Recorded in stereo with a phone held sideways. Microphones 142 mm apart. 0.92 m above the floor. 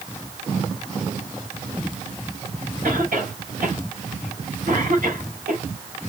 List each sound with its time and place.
2.8 s a cough: 85° right, 3.5 m